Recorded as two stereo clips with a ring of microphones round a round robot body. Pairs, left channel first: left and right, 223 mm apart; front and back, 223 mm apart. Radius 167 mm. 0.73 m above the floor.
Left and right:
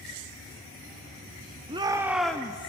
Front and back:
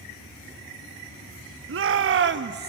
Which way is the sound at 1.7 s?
160° right.